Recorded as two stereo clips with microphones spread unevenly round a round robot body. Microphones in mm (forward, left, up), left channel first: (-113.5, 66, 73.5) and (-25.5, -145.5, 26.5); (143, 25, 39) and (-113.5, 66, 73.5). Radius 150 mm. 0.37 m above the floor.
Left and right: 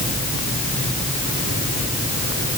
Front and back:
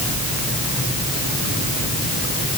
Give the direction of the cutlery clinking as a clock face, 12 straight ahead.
I don't hear cutlery clinking.